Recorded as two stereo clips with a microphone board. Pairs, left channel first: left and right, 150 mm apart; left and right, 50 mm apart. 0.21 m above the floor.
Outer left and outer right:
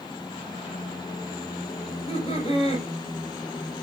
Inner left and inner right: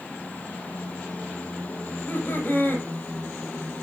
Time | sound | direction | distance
1.9 | laughter | 40° left (ahead or behind) | 6.5 m